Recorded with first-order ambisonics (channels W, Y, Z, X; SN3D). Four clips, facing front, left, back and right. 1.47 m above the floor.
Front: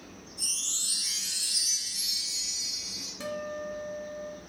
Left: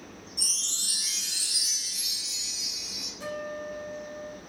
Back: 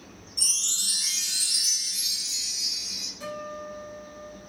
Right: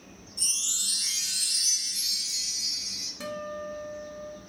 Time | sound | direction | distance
0.4 | a chime | 175° left | 1.4 m
3.2 | a guitar | 50° right | 1.2 m